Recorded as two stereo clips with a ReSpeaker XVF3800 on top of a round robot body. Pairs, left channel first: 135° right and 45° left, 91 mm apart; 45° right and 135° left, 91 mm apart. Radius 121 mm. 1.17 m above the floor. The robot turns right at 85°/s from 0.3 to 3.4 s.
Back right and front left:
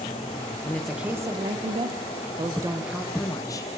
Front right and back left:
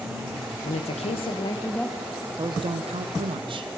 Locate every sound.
0.6 s a woman speaking: 65° right, 0.7 m; by 3.7 s 170° left, 0.7 m